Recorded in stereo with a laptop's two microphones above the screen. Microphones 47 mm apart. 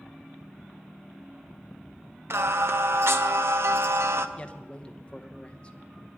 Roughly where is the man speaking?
Left.